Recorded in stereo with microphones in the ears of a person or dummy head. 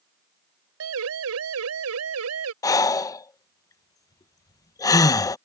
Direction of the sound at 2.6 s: 20° left (ahead or behind).